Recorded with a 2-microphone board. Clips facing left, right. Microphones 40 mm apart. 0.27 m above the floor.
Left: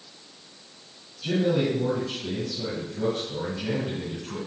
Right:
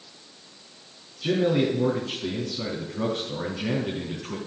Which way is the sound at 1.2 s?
70° right (ahead or behind).